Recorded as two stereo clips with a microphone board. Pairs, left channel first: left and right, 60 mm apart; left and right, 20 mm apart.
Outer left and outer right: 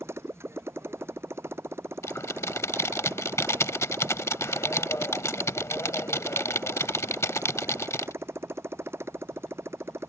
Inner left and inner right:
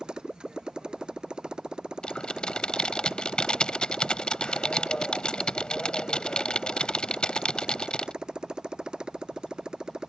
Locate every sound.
0.0 s a motorcycle: 45° right (ahead or behind)
2.0 s typing on a keyboard: 50° left (ahead or behind)